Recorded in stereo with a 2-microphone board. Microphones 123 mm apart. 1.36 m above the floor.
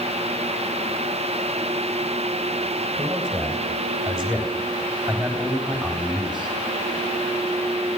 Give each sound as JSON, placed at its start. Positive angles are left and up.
{"t": 3.0, "sound": "a man speaking", "side_deg": 5, "distance_m": 9.0}